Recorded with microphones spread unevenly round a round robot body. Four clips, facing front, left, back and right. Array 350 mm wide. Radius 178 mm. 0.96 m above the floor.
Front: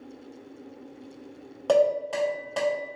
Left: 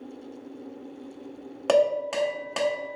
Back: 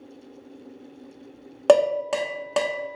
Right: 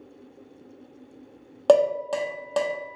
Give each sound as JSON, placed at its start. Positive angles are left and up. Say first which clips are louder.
{"t": 1.7, "sound": "dishes clattering", "louder": "right 3 dB, back 4 dB", "azimuth_deg": -165, "distance_m": 0.9}